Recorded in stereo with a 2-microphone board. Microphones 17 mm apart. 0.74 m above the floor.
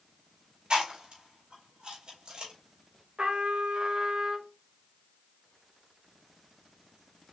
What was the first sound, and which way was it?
Chewing, 65° right (ahead or behind).